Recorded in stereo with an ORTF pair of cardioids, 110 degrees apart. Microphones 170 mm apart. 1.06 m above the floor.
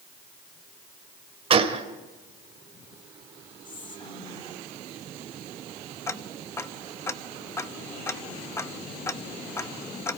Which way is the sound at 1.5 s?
35° right.